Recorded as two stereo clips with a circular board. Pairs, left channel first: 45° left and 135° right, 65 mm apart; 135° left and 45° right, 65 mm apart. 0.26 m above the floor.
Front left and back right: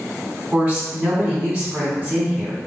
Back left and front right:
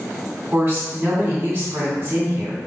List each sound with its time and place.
0.5 s a woman speaking: 70° right, 1.8 m